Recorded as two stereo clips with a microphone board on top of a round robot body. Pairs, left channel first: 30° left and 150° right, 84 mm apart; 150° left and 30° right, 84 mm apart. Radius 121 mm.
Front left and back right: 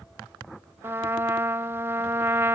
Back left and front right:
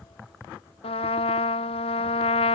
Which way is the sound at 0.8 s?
145° left.